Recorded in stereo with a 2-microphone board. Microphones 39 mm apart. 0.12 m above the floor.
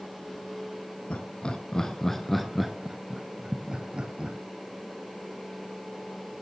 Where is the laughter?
30° left (ahead or behind), 1.6 m; by 4.4 s 30° right (ahead or behind), 2.5 m.